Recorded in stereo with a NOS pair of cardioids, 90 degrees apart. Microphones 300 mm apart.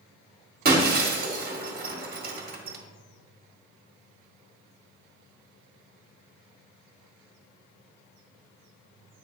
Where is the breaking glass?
30° right, 1.6 m.